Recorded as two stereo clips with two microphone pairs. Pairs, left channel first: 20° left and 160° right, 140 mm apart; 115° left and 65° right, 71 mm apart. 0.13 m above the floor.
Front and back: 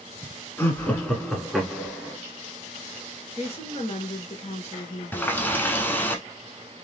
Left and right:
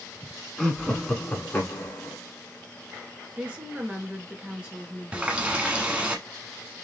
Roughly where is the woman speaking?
Ahead.